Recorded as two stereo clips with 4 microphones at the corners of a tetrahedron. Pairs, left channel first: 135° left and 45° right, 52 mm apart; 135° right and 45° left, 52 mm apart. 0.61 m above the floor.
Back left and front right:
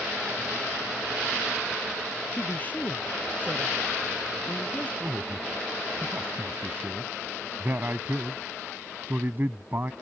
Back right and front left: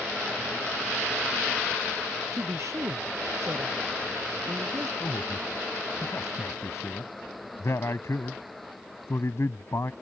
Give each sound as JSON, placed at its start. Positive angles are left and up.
{"t": 2.3, "sound": "a man speaking", "azimuth_deg": 75}
{"t": 5.0, "sound": "a man speaking", "azimuth_deg": -100}